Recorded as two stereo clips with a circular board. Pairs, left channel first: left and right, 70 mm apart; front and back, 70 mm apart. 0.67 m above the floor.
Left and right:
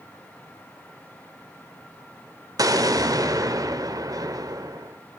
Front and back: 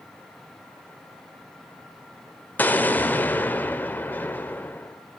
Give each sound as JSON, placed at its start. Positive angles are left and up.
{"t": 2.6, "sound": "an explosion", "azimuth_deg": -65, "distance_m": 1.5}